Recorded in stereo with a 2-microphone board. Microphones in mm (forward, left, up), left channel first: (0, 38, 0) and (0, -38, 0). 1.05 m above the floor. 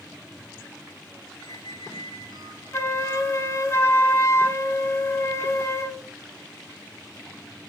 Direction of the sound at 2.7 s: 35° left (ahead or behind).